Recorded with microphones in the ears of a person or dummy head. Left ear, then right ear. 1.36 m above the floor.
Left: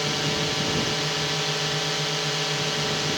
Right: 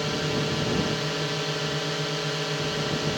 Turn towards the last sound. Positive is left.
turn(degrees=15)  # may be behind; listen again after turning